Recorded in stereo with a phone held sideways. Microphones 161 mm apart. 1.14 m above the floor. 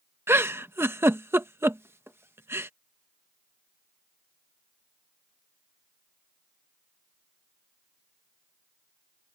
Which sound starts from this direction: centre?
A giggle, at 0.3 s.